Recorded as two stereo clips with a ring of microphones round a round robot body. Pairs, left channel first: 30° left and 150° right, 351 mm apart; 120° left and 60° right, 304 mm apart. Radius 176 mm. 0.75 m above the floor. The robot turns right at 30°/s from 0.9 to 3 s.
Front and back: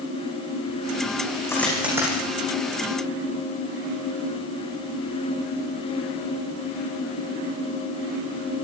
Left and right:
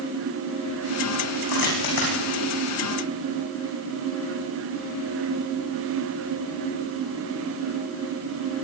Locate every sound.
1.5 s a dropped coin: 110° left, 10 m; by 2.2 s 135° left, 10 m